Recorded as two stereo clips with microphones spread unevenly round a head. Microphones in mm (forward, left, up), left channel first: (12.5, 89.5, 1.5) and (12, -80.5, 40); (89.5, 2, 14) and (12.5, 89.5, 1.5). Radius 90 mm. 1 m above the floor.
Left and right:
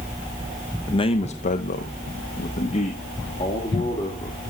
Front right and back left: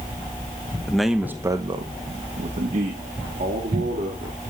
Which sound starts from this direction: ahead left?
A man speaking, at 0.9 s.